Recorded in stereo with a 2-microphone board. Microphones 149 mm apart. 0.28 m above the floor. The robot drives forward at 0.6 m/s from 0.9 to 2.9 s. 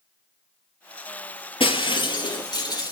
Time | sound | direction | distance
1.6 | breaking glass | 35° left (ahead or behind) | 1.9 m